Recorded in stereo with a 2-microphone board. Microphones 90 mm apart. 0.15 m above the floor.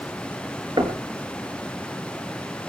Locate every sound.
0.8 s knocking: 50° right (ahead or behind), 2.5 m